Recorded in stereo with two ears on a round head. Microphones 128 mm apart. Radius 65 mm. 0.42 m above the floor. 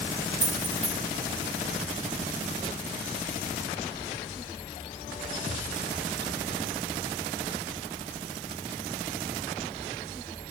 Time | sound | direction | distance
0.4 | keys jangling | 15° right (ahead or behind) | 2.5 m